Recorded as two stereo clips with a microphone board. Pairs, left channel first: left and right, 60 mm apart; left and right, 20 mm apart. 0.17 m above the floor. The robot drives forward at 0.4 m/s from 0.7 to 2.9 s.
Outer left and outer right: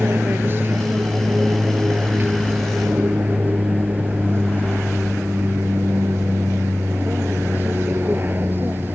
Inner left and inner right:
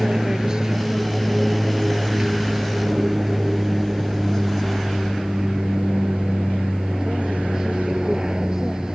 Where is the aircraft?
35° right (ahead or behind).